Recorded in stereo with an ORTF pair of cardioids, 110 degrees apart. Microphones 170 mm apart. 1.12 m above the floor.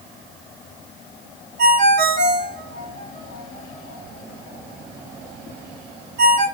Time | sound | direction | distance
1.6 | a ringtone | 65° right | 1.6 m